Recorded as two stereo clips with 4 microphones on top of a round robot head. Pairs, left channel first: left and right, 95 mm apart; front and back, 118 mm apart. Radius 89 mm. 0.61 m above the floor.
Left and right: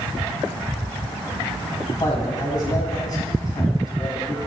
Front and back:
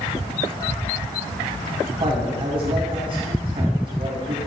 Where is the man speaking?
135° left, 5 m.